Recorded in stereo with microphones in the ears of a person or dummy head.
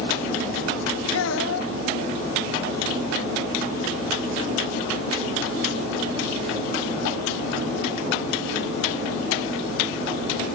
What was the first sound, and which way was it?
A child speaking, 70° left (ahead or behind).